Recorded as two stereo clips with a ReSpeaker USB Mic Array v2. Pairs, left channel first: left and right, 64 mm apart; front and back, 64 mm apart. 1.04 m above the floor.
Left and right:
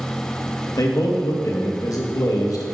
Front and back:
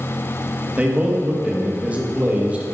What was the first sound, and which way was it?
A man speaking, 110° left.